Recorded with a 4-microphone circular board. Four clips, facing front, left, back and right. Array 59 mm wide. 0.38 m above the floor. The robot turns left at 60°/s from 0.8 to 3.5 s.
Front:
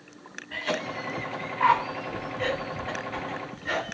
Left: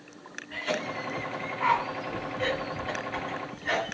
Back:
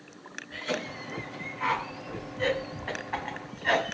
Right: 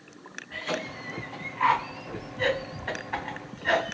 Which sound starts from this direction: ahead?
A cough, at 0.5 s.